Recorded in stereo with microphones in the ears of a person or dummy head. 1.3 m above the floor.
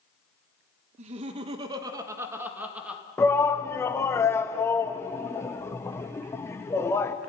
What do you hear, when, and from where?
1.0 s laughter: 40° right (ahead or behind), 1.7 m; by 3.0 s 5° right (ahead or behind), 2.5 m
3.2 s a shout: 15° left (ahead or behind), 1.3 m